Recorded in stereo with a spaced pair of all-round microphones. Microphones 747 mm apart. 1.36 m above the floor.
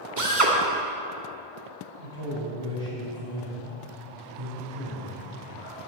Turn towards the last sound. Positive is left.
turn(degrees=-35)  # may be behind; listen again after turning